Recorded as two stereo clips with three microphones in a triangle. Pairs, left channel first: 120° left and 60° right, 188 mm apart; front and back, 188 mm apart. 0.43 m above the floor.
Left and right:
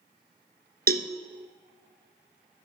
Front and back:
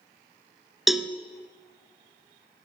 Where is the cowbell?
90° right, 0.9 m.